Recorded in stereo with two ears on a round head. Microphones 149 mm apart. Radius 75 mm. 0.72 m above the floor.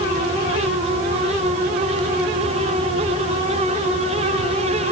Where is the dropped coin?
No dropped coin in this recording.